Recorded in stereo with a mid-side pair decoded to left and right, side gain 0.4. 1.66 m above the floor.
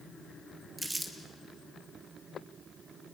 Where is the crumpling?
20° right, 3 m.